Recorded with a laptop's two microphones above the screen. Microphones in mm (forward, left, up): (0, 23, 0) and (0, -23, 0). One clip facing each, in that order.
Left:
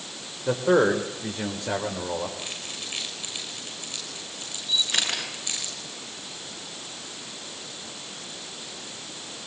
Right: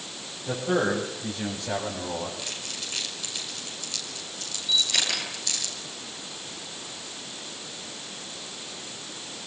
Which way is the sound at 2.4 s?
20° left (ahead or behind).